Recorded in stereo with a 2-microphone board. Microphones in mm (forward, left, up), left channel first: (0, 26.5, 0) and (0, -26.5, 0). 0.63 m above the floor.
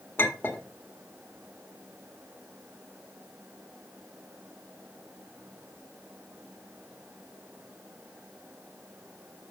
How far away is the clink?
About 1.6 m.